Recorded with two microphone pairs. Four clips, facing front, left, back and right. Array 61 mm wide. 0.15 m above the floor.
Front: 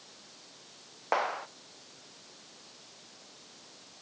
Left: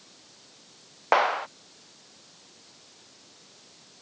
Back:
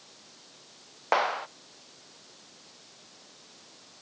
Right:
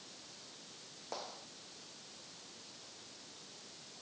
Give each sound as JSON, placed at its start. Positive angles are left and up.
{"t": 1.1, "sound": "a clap", "azimuth_deg": 105}